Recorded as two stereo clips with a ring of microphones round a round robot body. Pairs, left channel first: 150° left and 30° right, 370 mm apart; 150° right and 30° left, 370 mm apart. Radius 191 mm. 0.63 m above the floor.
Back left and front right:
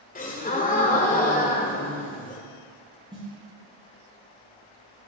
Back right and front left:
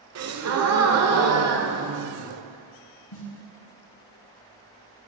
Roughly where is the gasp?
Left.